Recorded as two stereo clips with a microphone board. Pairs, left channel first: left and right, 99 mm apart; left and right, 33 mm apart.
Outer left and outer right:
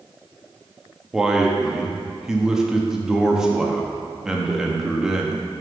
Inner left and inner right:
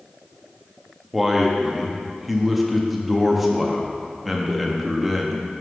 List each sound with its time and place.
1.1 s a man speaking: 5° right (ahead or behind), 0.8 m